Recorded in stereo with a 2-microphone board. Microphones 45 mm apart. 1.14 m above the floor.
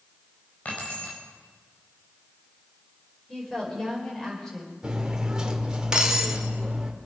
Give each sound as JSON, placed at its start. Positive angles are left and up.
{"t": 0.7, "sound": "keys jangling", "side_deg": 40, "distance_m": 4.5}
{"t": 3.3, "sound": "a woman speaking", "side_deg": 10, "distance_m": 5.5}
{"t": 4.8, "sound": "cutlery clinking", "side_deg": -15, "distance_m": 2.0}